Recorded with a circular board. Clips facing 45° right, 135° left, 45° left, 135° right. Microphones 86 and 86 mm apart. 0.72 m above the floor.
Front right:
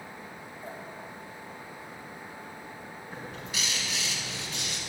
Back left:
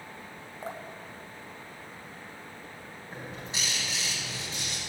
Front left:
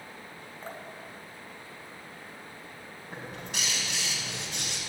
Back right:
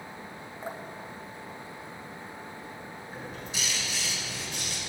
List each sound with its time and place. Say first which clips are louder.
0.6 s dripping: back left 3 dB, back right 3 dB; 150° left, 1.3 m
3.1 s a bird: even, front left 1 dB; 75° left, 4.5 m